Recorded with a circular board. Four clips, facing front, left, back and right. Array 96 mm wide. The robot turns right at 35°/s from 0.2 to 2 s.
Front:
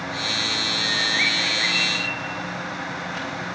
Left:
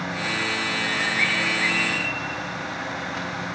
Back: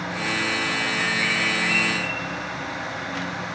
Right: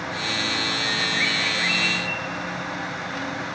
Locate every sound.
0.8 s a bird: 25° left, 6.5 m; by 2.1 s 65° left, 6.5 m